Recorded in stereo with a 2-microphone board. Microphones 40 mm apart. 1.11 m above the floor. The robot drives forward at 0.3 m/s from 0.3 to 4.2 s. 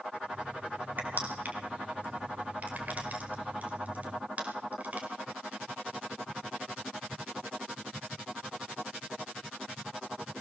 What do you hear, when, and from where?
1.0 s crushing: 50° right (ahead or behind), 4 m; by 5.1 s 40° right (ahead or behind), 5 m